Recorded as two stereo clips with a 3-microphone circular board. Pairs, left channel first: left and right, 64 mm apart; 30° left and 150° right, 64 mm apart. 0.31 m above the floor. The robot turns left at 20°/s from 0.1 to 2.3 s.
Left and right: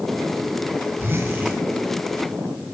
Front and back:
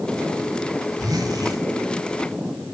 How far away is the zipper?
About 8 m.